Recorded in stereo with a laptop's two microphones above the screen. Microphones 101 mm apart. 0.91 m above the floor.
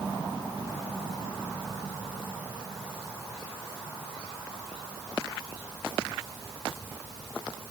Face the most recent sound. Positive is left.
No sound to turn to.